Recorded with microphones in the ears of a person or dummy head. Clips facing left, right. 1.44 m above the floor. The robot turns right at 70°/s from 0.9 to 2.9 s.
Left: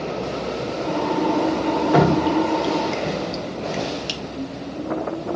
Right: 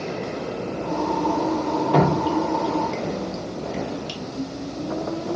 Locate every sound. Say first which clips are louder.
1.9 s dripping: left 3 dB; 10° left (ahead or behind), 0.8 m; by 4.2 s 70° left (ahead or behind), 0.8 m